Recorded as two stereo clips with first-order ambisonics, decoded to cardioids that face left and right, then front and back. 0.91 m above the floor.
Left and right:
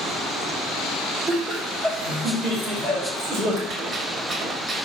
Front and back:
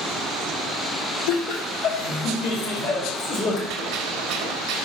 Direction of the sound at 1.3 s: 10° right.